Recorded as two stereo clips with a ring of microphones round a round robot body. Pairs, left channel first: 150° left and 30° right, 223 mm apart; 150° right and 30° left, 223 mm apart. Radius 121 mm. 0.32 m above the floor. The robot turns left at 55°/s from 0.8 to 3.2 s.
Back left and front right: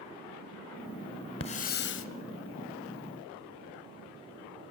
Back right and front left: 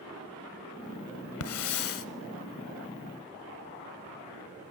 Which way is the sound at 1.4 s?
145° right.